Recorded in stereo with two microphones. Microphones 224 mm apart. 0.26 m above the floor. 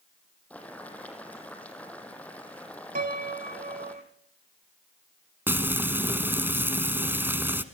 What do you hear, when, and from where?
0.5 s boiling: 5° left (ahead or behind), 3 m
3.0 s a piano: 40° right (ahead or behind), 1.0 m
5.5 s frying: 10° right (ahead or behind), 1.1 m